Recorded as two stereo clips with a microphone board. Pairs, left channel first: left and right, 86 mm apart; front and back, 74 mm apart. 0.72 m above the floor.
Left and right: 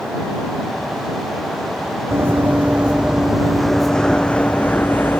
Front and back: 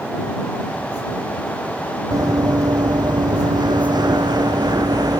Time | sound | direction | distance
2.1 | running footsteps | 150° right | ?